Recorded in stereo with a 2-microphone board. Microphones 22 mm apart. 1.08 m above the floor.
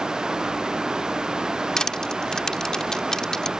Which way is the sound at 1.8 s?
35° left (ahead or behind).